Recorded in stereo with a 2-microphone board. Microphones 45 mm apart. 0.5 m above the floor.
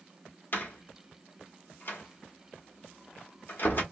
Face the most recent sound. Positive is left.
turn(degrees=45)  # may be behind; listen again after turning